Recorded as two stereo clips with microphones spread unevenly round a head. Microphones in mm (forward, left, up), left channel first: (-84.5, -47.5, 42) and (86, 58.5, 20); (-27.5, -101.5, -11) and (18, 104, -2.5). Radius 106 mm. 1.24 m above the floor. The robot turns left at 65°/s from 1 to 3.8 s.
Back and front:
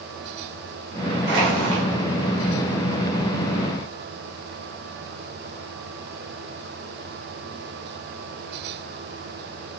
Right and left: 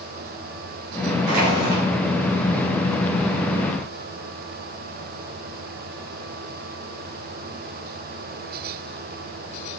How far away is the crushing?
About 3 m.